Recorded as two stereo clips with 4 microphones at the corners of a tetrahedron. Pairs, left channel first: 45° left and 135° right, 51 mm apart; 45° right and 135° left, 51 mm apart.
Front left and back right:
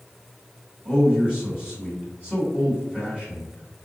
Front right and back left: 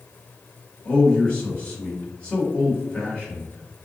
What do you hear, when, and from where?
0.8 s a man speaking: 85° right, 1.7 m